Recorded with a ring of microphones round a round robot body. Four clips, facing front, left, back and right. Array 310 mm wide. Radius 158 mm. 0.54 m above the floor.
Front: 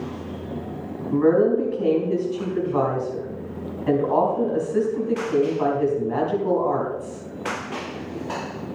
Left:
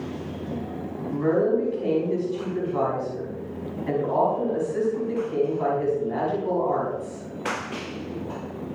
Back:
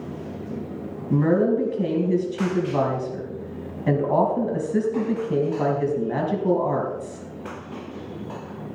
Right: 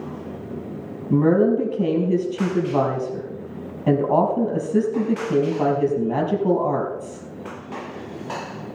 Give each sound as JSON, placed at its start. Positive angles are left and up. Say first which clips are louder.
{"t": 1.1, "sound": "a woman speaking", "louder": "right 5 dB, front 2 dB", "azimuth_deg": -120, "distance_m": 4.5}